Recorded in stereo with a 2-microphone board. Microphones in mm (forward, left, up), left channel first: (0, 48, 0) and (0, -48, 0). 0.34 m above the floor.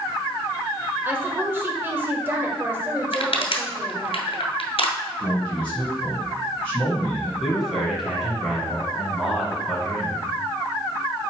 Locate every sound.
1.1 s a woman speaking: 25° right (ahead or behind), 1.2 m
3.1 s crushing: 70° left (ahead or behind), 1.2 m
5.2 s a man speaking: 15° left (ahead or behind), 2.5 m
7.4 s a man speaking: centre (ahead or behind), 2.5 m